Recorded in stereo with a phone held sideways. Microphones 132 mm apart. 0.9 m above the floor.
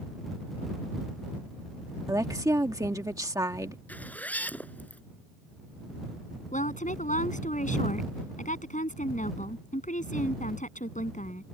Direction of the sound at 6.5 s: 70° left (ahead or behind).